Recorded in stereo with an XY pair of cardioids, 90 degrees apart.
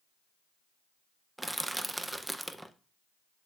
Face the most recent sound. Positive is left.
turn(degrees=-10)